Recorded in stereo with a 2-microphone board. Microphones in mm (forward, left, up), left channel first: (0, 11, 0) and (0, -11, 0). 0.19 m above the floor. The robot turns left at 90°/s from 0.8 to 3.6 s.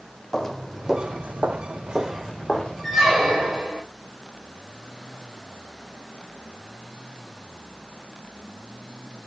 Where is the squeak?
Straight ahead, 3.5 m; by 3.8 s 70° right, 3.5 m.